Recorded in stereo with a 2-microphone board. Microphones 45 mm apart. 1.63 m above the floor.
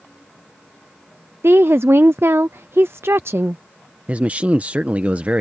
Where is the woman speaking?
70° right (ahead or behind).